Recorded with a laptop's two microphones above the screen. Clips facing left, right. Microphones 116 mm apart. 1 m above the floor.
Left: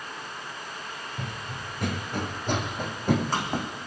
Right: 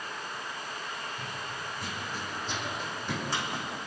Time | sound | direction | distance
1.2 | running footsteps | 70° left (ahead or behind) | 2.5 m